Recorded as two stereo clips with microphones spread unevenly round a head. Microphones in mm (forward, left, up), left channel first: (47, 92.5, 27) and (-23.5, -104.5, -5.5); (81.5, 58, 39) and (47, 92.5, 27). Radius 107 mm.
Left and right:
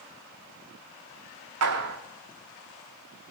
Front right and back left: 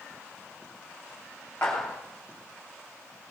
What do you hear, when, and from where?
1.6 s a clap: 125° right, 2.5 m